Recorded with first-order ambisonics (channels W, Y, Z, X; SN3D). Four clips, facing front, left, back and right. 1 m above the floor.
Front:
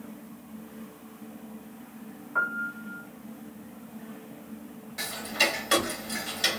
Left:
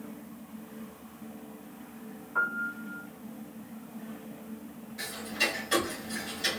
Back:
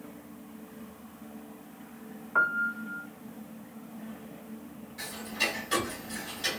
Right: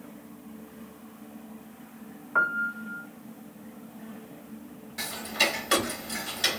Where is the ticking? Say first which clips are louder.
Right 4 dB, front 5 dB; 45° right, 1.0 m.